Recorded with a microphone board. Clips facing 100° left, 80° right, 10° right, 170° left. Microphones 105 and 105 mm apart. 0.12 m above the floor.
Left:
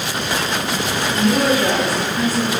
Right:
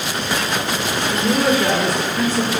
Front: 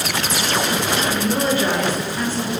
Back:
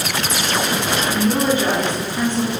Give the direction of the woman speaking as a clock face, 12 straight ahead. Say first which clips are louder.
Left 1 dB, back 5 dB; 7 o'clock.